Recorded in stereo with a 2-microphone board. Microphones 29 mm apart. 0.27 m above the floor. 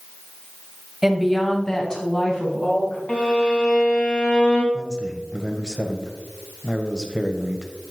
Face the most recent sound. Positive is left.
turn(degrees=-20)  # may be behind; listen again after turning